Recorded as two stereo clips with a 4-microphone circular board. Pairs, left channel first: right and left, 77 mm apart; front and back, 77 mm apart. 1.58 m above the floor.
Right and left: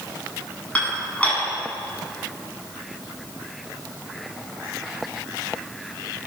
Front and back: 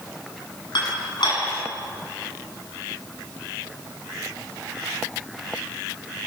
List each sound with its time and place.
0.8 s dishes clattering: 15° right, 9 m